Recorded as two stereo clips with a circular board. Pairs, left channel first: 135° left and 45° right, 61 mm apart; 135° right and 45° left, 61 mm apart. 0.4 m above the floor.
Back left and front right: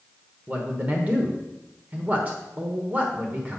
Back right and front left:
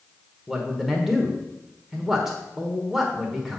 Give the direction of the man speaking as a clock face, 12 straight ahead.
1 o'clock.